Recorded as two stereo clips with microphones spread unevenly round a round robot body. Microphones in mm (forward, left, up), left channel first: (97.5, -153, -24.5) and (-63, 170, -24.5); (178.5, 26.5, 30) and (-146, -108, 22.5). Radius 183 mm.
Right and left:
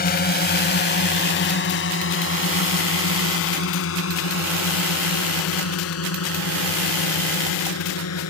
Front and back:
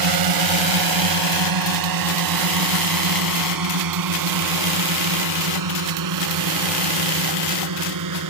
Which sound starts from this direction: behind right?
A drone, at 0.0 s.